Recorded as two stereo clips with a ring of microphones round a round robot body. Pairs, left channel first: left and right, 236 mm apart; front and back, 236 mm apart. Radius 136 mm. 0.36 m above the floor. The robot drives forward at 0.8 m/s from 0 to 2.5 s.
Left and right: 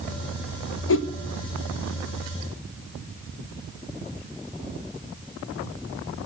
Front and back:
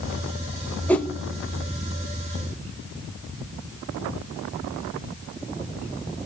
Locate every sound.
0.9 s a whoosh: 80° left, 1.4 m; by 1.1 s 90° left, 1.4 m